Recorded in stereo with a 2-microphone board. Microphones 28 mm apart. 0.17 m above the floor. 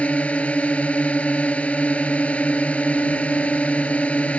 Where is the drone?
60° left (ahead or behind).